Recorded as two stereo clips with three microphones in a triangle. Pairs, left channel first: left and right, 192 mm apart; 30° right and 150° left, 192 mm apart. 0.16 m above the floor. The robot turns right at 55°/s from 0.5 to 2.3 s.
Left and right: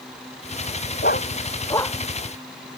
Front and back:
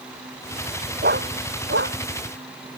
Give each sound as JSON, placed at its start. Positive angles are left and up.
{"t": 1.0, "sound": "a dog barking", "azimuth_deg": 120}